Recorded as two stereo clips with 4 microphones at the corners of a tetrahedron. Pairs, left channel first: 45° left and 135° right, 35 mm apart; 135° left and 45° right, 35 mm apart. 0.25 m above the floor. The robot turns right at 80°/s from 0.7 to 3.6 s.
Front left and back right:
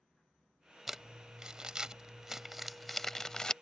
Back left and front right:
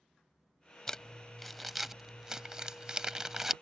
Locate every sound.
0.9 s crumpling: 165° left; by 3.5 s 15° left